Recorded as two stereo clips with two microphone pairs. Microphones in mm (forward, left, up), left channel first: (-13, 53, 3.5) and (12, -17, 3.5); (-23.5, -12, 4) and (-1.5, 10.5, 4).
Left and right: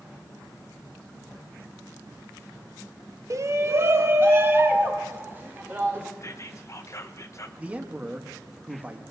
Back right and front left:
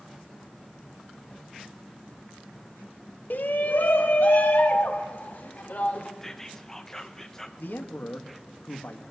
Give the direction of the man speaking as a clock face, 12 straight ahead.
5 o'clock.